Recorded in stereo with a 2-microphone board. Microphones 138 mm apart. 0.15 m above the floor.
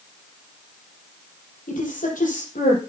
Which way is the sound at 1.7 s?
75° left (ahead or behind).